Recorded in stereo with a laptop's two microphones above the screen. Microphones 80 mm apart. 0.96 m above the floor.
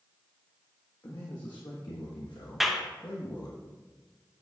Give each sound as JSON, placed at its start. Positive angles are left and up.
{"t": 1.0, "sound": "a man speaking", "side_deg": 50, "distance_m": 1.4}
{"t": 2.6, "sound": "a clap", "side_deg": -5, "distance_m": 0.6}